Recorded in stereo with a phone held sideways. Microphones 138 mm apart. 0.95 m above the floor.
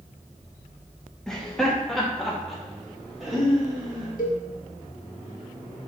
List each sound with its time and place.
1.3 s laughter: 5° left (ahead or behind), 1.0 m; by 4.1 s centre (ahead or behind), 3 m
4.2 s a cowbell: 80° left, 1.0 m